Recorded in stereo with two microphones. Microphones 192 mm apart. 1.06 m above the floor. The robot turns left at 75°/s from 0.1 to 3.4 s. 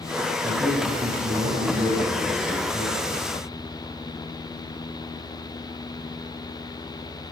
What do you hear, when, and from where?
0.4 s a man speaking: 25° right, 7.5 m; by 3.1 s 130° left, 7.5 m